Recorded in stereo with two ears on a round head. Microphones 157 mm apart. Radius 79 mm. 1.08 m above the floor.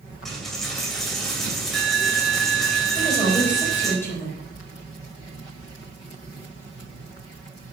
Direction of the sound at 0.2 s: Centre (ahead or behind).